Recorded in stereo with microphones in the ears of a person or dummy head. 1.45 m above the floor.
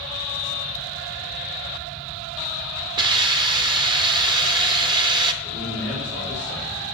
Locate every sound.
3.0 s a hiss: 30° right (ahead or behind), 0.7 m
5.4 s a man speaking: 30° right (ahead or behind), 3 m